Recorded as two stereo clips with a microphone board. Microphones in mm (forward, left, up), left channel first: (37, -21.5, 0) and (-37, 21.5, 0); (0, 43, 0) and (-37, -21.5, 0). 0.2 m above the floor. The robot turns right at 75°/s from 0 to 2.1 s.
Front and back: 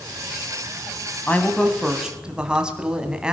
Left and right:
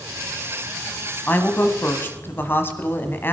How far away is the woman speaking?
About 1.4 m.